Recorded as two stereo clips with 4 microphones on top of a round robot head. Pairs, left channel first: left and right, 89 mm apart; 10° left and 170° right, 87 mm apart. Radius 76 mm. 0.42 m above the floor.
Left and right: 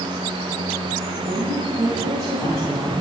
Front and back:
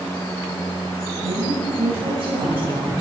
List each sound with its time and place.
1.2 s a woman speaking: 175° left, 5 m